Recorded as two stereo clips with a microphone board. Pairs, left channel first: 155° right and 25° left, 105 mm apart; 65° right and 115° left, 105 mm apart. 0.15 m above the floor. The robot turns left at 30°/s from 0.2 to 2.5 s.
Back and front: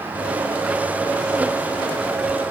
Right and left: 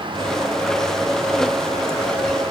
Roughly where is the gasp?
I don't hear a gasp.